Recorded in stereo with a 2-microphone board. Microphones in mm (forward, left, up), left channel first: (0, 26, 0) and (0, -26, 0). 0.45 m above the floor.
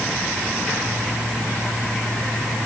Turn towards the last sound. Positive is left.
No sound to turn to.